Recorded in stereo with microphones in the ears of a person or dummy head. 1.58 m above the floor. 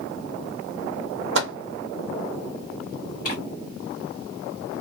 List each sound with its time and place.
1.4 s a microwave: 65° right (ahead or behind), 0.6 m
3.2 s tearing paper: 45° left (ahead or behind), 1.5 m